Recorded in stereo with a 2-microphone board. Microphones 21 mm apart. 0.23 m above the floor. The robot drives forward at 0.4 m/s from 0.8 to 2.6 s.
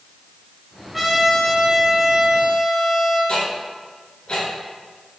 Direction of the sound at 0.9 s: 5° right (ahead or behind).